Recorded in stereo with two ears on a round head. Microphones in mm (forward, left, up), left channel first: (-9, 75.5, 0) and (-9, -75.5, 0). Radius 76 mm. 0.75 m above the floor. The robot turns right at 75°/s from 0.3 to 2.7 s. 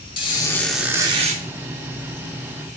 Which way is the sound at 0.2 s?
150° left.